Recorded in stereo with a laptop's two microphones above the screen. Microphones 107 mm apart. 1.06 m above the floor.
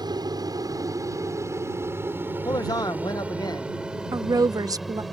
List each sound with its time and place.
0.0 s an aircraft: 40° right (ahead or behind); by 5.1 s centre (ahead or behind)
2.5 s a man speaking: 40° left (ahead or behind)
4.1 s a woman speaking: 35° right (ahead or behind)